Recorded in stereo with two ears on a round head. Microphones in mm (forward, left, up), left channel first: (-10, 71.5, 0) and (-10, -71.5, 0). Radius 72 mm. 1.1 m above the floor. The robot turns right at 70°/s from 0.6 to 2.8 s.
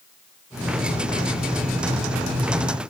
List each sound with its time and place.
Only background noise.